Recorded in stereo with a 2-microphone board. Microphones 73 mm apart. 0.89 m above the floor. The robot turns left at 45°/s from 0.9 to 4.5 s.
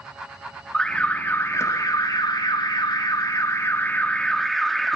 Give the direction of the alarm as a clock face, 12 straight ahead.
6 o'clock.